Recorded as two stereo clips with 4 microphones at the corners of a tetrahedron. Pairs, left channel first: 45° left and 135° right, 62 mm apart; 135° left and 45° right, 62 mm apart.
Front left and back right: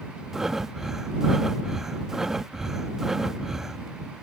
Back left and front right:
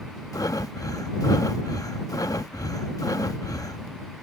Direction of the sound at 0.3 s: 140° left.